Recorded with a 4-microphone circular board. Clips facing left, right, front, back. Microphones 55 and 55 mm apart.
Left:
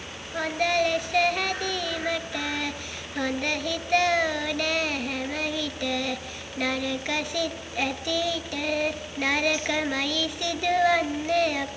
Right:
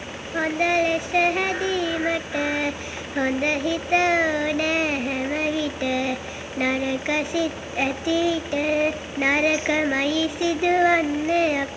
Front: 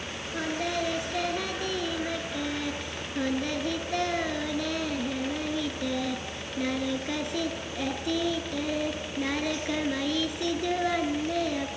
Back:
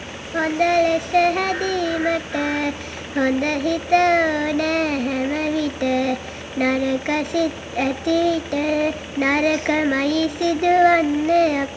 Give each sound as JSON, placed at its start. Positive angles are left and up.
{"t": 0.3, "sound": "singing", "azimuth_deg": -155, "distance_m": 0.7}